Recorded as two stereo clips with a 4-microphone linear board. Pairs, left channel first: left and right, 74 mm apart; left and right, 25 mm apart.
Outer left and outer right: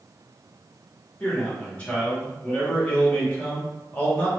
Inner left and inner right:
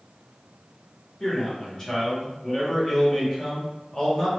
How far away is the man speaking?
About 1.8 m.